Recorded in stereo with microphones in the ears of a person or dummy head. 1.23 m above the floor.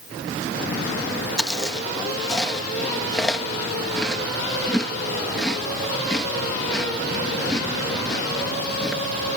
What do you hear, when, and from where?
1.4 s chewing: centre (ahead or behind)